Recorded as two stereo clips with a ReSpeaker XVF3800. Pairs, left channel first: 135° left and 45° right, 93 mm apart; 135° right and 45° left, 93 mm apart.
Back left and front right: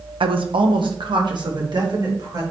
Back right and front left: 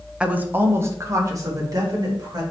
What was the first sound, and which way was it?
A woman speaking, 35° right.